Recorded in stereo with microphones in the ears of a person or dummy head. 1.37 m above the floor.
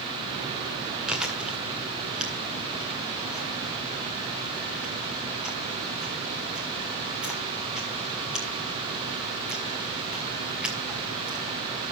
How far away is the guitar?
I don't hear a guitar.